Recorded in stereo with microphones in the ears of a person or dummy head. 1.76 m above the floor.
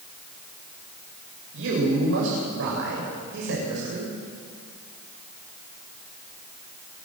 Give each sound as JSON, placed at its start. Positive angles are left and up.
{"t": 1.5, "sound": "a man speaking", "side_deg": -70, "distance_m": 8.5}